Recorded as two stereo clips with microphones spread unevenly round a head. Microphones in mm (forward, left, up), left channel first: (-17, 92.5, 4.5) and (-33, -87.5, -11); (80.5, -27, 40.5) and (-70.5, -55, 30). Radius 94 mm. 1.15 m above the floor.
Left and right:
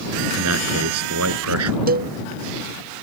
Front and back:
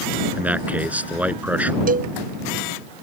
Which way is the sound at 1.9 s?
135° right.